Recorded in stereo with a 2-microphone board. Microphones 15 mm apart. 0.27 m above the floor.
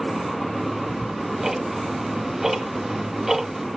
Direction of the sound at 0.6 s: 15° right (ahead or behind).